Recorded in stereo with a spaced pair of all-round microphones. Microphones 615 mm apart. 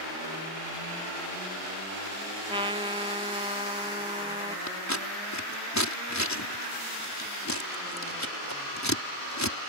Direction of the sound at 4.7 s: 25° left (ahead or behind).